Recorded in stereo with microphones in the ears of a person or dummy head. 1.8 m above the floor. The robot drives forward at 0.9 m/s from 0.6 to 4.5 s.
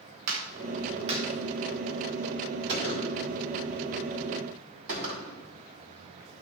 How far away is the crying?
No crying in this recording.